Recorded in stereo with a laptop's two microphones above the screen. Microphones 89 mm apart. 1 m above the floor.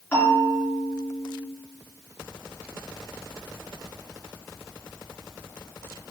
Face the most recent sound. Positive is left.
turn(degrees=25)  # may be behind; listen again after turning